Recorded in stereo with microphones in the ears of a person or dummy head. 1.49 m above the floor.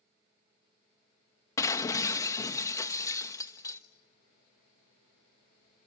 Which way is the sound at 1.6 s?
20° left (ahead or behind).